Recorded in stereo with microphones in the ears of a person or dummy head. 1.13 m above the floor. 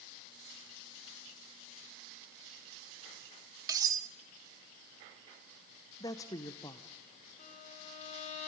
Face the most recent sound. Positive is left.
turn(degrees=40)  # may be behind; listen again after turning